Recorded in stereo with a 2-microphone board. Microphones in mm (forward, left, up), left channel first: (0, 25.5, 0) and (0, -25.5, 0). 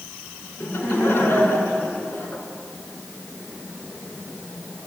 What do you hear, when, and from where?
0.6 s laughter: 45° left (ahead or behind), 4.5 m